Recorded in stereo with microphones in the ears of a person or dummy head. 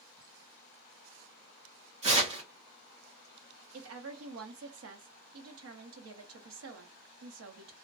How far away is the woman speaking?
About 0.8 m.